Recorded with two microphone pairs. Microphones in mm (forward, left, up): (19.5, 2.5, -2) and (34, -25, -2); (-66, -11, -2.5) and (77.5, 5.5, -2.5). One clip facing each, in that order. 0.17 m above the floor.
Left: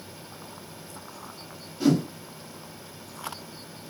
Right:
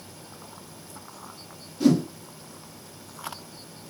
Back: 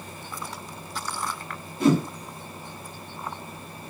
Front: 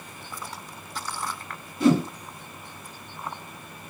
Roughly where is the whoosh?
Behind.